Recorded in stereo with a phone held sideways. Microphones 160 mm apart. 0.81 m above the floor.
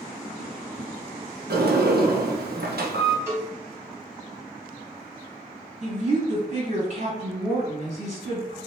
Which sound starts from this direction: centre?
A cowbell, at 3.3 s.